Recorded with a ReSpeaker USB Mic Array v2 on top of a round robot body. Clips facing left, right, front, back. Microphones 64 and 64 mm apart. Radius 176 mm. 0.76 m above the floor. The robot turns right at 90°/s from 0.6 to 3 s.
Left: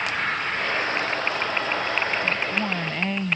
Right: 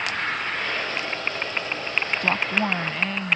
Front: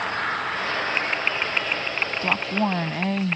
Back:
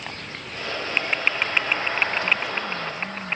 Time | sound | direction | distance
0.0 | an engine running | 5° left | ?
2.2 | a woman speaking | 60° right | ?